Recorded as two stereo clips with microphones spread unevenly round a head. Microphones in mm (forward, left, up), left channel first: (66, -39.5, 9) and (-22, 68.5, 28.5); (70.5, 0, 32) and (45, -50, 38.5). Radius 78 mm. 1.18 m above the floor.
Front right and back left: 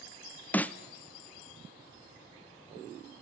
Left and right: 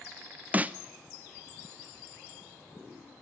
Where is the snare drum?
85° right, 0.6 m.